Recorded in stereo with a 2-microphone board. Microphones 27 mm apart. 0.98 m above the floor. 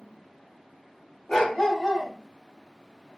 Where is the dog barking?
25° left (ahead or behind), 1.3 m.